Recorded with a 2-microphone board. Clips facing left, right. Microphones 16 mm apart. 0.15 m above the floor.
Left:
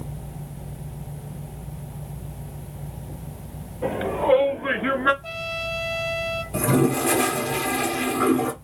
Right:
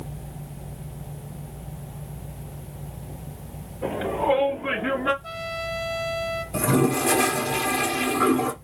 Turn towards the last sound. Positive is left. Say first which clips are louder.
# left 1 dB
turn(degrees=-5)  # may be behind; listen again after turning